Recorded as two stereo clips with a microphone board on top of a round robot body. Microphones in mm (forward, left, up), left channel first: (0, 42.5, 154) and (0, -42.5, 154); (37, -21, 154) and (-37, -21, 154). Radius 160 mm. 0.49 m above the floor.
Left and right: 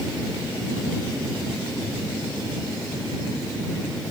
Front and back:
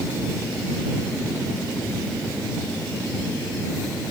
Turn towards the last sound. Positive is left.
No sound to turn to.